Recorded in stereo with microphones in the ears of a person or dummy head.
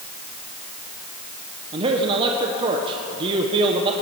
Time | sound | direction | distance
1.7 | a man speaking | 35° right (ahead or behind) | 1.0 m